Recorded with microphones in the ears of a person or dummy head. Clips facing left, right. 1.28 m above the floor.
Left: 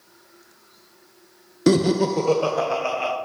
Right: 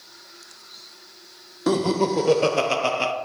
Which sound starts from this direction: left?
Laughter, at 1.7 s.